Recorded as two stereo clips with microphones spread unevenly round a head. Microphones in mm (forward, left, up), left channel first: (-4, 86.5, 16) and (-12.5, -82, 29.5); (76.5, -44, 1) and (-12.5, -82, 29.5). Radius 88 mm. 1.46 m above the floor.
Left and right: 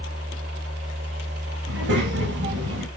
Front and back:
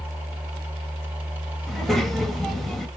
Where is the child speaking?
75° right, 1.4 m.